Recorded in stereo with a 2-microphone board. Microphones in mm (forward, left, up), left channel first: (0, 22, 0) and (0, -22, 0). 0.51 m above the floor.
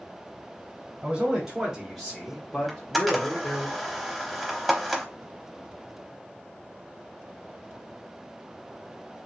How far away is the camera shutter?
About 0.6 m.